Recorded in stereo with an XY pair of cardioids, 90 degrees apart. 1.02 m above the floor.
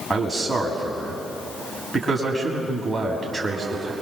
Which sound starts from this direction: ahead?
A man speaking, at 0.1 s.